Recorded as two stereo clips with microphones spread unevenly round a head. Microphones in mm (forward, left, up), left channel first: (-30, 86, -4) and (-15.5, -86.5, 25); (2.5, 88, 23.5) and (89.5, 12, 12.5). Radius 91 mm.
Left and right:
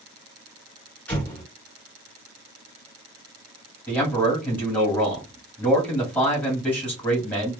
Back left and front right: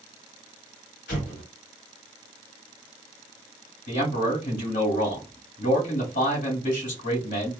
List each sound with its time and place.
1.1 s an explosion: 175° left, 1.7 m
3.9 s a man speaking: 175° left, 2.0 m